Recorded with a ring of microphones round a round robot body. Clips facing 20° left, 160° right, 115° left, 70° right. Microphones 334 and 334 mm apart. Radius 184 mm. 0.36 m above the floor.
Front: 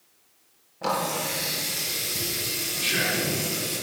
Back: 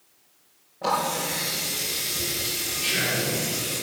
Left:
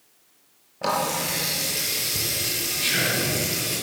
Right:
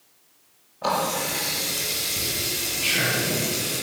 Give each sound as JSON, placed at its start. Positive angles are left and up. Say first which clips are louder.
{"t": 0.8, "sound": "a running tap", "louder": "even, right 1 dB", "azimuth_deg": 95, "distance_m": 5.5}
{"t": 2.8, "sound": "whispering", "louder": "even, even", "azimuth_deg": 90, "distance_m": 6.5}